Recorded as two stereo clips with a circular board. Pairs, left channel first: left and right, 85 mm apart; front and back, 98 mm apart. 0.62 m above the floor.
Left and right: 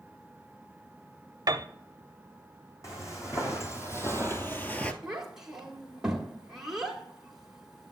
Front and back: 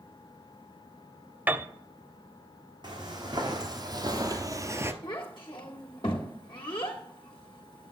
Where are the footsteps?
140° left, 2 m; by 4.9 s 145° left, 0.6 m.